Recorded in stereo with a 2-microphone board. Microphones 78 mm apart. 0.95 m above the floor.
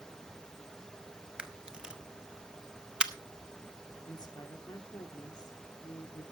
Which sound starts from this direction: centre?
A camera shutter, at 1.4 s.